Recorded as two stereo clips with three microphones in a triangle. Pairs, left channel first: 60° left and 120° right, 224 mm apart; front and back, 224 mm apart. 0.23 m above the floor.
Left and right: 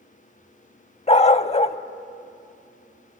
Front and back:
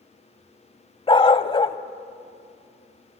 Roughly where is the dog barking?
Ahead left.